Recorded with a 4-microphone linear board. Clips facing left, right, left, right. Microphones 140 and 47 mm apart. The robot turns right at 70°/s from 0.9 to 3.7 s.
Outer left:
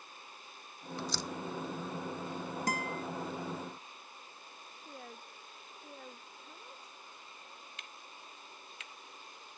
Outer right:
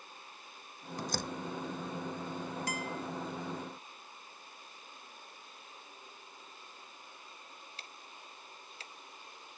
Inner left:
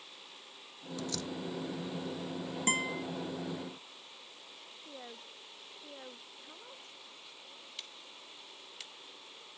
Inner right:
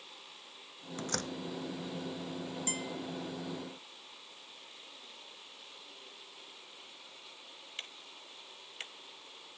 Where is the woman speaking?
75° left (ahead or behind).